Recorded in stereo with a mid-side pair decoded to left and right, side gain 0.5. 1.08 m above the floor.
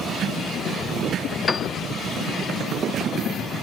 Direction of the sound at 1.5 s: 25° left.